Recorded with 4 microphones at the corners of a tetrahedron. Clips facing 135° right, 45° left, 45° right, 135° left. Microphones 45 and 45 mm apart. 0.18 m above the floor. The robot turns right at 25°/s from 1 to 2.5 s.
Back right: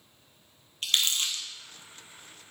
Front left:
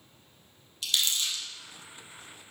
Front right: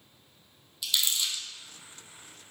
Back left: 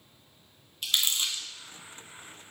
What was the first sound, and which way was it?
Crumpling, straight behind.